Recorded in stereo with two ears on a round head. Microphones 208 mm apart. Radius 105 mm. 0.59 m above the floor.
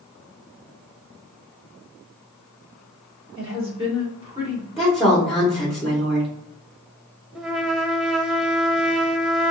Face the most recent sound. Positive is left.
turn(degrees=0)  # may be behind; listen again after turning